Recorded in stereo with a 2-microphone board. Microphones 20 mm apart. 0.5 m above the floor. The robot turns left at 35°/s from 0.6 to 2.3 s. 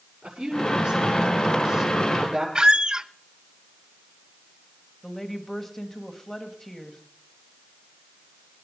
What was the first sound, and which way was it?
A woman speaking, 85° right.